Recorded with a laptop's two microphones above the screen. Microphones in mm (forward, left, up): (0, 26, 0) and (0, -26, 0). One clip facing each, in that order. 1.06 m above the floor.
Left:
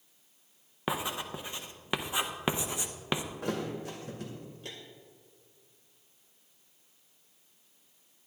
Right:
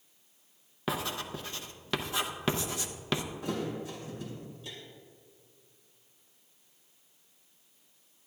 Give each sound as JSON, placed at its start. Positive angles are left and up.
{"t": 0.9, "sound": "writing", "side_deg": 20, "distance_m": 0.6}
{"t": 3.4, "sound": "a thud", "side_deg": 70, "distance_m": 2.0}